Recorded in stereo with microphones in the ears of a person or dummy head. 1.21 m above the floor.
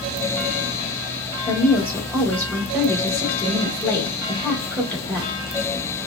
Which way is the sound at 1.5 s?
15° left (ahead or behind).